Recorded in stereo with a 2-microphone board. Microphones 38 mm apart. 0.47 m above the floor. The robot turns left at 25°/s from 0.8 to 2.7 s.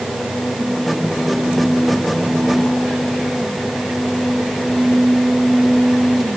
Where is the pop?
No pop in this recording.